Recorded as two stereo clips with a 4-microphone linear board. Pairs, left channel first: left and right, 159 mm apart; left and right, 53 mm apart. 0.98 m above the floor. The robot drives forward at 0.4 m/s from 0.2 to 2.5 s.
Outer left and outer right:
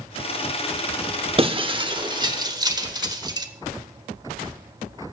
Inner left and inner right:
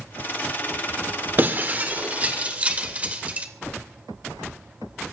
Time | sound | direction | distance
1.4 | breaking glass | 35° right (ahead or behind) | 1.0 m